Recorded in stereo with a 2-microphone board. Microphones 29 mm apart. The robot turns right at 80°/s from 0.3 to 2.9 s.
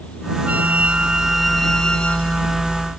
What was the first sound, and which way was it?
A flute, 85° right.